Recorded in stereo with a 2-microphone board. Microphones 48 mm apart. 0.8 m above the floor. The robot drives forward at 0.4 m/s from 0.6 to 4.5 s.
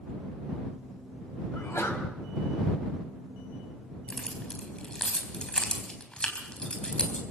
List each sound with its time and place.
1.5 s a sneeze: 80° left, 4.5 m
4.1 s keys jangling: 20° left (ahead or behind), 3.5 m